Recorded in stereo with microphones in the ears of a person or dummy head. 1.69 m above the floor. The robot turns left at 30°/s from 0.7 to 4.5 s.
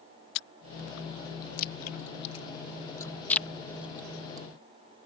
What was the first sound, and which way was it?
Chewing, 65° left (ahead or behind).